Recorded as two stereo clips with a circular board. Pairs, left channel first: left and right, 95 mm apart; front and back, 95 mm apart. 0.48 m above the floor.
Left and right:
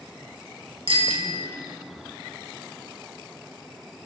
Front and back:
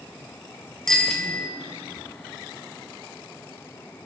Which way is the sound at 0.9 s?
85° right.